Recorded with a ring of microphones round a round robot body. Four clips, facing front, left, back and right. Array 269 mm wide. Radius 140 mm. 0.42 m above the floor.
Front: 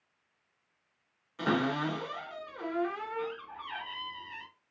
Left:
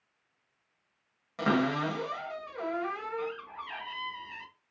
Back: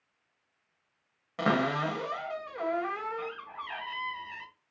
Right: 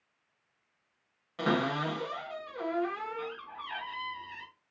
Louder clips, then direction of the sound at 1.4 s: Left 2 dB, back 2 dB; 170° left.